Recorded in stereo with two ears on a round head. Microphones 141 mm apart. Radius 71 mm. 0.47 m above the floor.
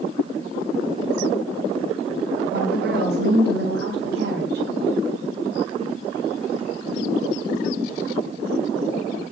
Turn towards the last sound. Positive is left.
turn(degrees=-65)  # may be behind; listen again after turning